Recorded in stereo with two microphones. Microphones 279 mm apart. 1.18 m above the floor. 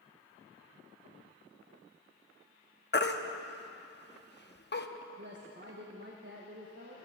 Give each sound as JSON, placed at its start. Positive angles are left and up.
{"t": 2.9, "sound": "a baby crying", "side_deg": 40, "distance_m": 0.7}
{"t": 5.2, "sound": "a woman speaking", "side_deg": -40, "distance_m": 1.4}